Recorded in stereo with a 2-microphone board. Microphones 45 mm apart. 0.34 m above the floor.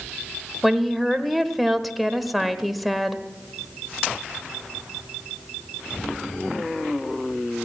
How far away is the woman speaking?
About 1.0 m.